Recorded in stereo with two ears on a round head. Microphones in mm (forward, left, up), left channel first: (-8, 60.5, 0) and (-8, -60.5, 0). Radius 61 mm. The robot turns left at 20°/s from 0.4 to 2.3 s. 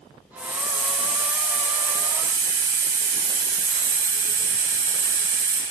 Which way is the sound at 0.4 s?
10° left.